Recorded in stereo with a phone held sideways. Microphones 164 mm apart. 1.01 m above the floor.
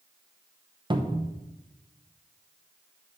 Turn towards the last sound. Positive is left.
turn(degrees=-30)  # may be behind; listen again after turning